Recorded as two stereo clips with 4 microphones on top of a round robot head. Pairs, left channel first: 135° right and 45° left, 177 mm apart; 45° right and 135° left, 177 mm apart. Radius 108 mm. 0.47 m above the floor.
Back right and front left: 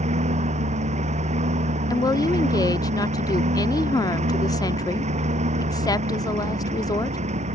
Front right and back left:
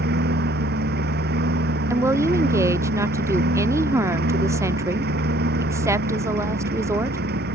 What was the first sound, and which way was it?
A lawn mower, 100° left.